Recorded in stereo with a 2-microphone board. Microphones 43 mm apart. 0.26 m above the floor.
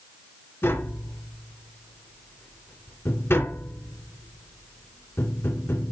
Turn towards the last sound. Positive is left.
turn(degrees=70)  # may be behind; listen again after turning